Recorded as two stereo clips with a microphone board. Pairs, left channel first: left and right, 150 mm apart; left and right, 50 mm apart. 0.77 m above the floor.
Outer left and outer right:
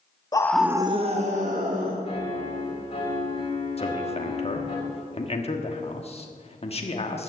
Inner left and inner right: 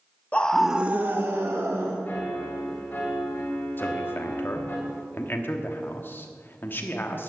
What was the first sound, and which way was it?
A scream, 25° left (ahead or behind).